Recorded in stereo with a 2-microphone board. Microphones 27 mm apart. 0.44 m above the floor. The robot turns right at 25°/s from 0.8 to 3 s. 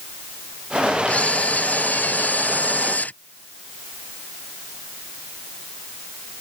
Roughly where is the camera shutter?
Ahead left.